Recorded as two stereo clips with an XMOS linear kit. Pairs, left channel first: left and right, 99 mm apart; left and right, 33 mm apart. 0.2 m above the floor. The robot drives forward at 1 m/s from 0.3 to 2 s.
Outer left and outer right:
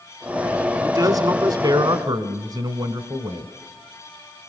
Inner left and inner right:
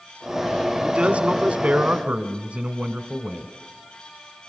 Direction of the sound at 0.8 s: 40° right (ahead or behind).